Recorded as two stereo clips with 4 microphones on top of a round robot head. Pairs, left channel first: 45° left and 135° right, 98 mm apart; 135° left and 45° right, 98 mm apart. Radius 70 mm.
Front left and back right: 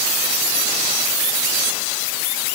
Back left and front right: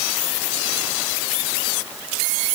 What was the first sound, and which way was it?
Only background noise.